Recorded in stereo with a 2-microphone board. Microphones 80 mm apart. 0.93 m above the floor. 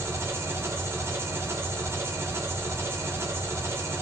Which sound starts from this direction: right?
An engine running, at 0.0 s.